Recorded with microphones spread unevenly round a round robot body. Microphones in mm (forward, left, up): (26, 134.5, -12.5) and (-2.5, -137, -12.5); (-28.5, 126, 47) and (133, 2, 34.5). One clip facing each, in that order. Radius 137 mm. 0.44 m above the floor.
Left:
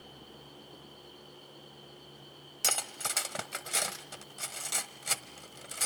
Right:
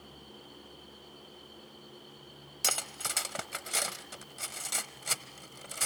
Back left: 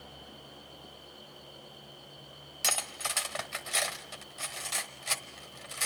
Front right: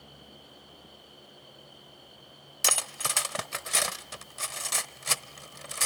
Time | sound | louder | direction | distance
2.6 | cutlery clinking | even, front right 3 dB | 10° right | 1.1 m